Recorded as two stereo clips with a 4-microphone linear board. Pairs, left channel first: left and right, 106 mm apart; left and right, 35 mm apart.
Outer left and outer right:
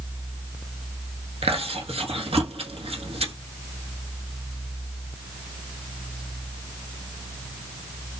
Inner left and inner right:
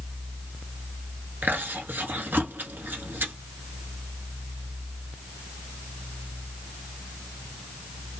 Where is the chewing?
70° right (ahead or behind), 1.0 m.